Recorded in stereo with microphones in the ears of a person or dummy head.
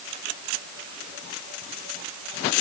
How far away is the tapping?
I don't hear tapping.